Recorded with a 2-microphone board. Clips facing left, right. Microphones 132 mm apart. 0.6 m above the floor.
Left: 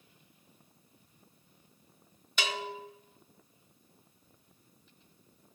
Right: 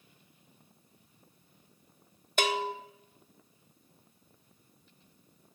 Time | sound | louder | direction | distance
2.4 | a bell | right 6 dB | 50° right (ahead or behind) | 0.7 m